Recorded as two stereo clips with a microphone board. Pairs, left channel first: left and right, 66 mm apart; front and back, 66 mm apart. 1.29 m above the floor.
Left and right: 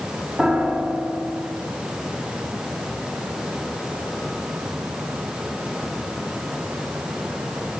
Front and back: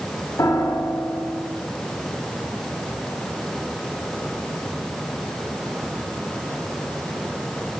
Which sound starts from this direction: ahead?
A piano, at 0.4 s.